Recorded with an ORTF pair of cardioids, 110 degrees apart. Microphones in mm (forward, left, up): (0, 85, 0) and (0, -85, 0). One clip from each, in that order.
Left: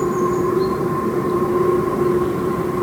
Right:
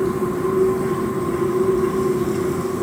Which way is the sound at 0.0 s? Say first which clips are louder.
Left 3 dB; 55° left.